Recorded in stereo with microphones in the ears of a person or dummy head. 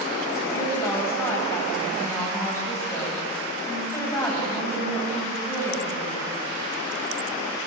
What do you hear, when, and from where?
0.5 s a woman speaking: 20° left (ahead or behind), 7.5 m